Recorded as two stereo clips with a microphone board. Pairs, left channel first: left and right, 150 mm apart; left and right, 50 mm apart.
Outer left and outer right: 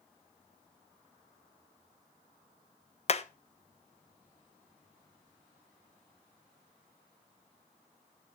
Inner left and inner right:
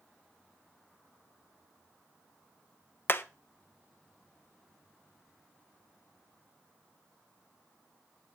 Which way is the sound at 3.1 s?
45° left (ahead or behind).